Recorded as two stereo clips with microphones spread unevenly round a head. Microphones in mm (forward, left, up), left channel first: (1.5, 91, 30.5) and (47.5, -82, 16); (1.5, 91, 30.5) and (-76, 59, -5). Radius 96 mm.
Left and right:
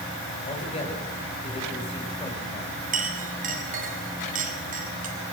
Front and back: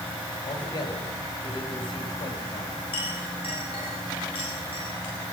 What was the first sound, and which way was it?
A man speaking, 50° left.